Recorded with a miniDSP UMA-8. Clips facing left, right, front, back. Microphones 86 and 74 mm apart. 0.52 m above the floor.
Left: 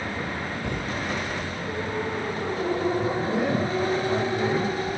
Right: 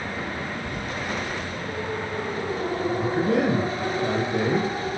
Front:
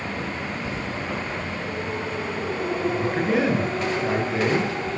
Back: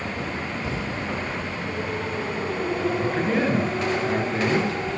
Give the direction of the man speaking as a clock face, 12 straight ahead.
3 o'clock.